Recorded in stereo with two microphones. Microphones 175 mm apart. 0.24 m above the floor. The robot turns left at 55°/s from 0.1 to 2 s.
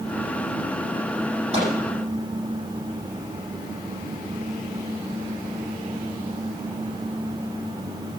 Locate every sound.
1.5 s a microwave: 35° right (ahead or behind), 7 m; by 1.7 s 25° right (ahead or behind), 7 m